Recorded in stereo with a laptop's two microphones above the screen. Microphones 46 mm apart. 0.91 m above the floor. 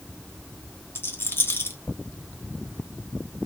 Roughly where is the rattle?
Left.